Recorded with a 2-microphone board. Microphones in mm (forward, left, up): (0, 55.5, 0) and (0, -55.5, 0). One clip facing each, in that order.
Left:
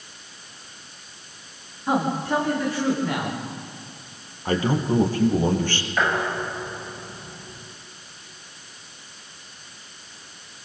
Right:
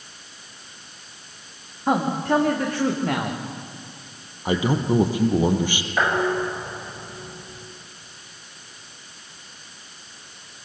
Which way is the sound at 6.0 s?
15° right (ahead or behind).